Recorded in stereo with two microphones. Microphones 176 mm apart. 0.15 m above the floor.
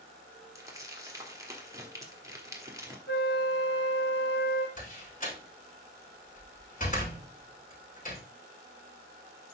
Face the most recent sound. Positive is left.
turn(degrees=50)  # may be behind; listen again after turning